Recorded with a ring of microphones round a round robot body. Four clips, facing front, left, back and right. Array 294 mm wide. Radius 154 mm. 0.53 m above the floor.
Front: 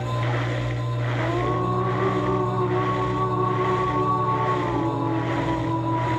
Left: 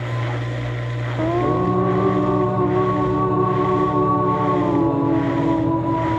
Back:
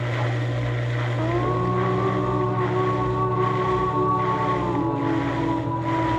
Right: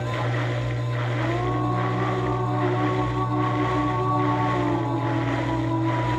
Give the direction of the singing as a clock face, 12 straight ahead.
9 o'clock.